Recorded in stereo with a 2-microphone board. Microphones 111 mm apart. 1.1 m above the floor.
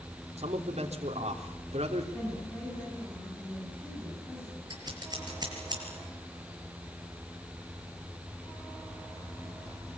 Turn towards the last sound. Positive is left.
turn(degrees=-40)  # may be behind; listen again after turning